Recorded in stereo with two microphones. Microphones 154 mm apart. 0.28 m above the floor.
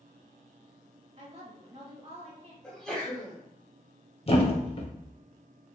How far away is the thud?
About 0.5 m.